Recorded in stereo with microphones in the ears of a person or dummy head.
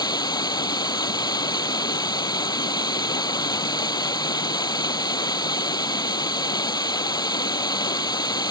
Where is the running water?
20° left (ahead or behind).